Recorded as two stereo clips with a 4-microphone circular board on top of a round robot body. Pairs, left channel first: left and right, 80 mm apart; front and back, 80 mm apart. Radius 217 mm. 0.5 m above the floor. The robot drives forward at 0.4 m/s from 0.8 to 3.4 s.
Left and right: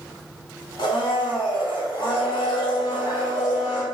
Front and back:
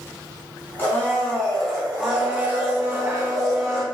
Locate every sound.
0.8 s a blender: 65° left, 0.9 m; by 3.8 s 130° left, 1.1 m